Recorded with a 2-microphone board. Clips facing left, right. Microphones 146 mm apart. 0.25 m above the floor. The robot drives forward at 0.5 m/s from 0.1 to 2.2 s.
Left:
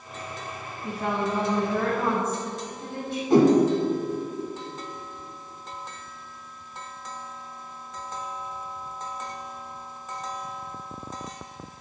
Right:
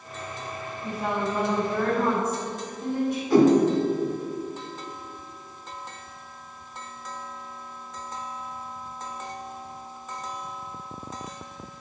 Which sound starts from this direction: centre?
A woman speaking, at 0.8 s.